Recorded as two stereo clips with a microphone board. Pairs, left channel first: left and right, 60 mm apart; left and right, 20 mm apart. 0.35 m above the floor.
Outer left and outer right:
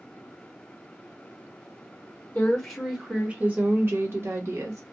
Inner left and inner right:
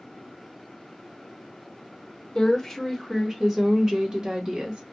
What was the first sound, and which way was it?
A woman speaking, 15° left (ahead or behind).